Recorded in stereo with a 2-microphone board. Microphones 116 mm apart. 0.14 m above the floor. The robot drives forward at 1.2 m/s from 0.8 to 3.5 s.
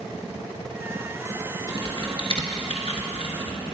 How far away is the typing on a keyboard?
About 1.9 m.